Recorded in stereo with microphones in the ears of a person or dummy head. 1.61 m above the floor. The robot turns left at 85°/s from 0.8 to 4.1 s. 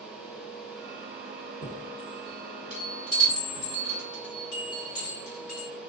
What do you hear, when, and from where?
1.6 s a chime: 45° right (ahead or behind), 1.7 m; by 5.7 s 45° left (ahead or behind), 1.7 m